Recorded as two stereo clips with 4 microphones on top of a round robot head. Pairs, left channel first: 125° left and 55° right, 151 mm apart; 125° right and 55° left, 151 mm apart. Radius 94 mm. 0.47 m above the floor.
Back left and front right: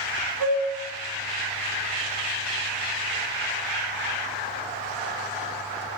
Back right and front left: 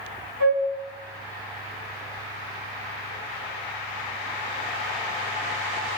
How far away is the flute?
About 2.5 m.